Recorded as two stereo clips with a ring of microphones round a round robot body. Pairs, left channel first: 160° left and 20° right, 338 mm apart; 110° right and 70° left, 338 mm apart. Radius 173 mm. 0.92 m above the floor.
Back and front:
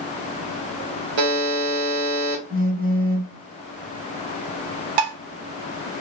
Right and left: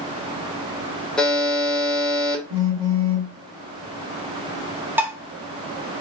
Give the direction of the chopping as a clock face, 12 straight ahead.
No chopping in this recording.